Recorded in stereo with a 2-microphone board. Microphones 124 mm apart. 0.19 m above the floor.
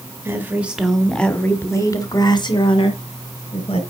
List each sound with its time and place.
0.2 s a woman speaking: 20° right (ahead or behind), 1.6 m; by 3.8 s 55° left (ahead or behind), 2.5 m